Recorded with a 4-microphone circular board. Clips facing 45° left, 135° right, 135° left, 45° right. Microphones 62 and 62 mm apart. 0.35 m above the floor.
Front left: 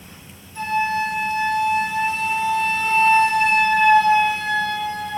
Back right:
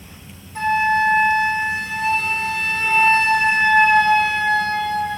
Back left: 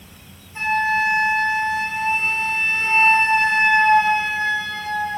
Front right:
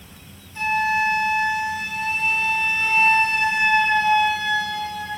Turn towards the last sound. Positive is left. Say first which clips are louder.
# back right 4 dB, back left 1 dB
turn(degrees=-165)